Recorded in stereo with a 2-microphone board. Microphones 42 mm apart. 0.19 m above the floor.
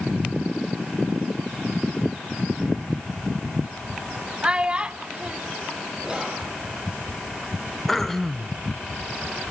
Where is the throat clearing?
5° left (ahead or behind), 1.0 m.